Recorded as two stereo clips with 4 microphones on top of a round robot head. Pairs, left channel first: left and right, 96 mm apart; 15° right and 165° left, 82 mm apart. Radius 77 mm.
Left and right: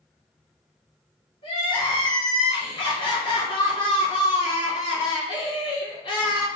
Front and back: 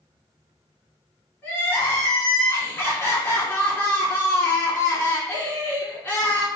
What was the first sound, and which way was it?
Crying, 50° left.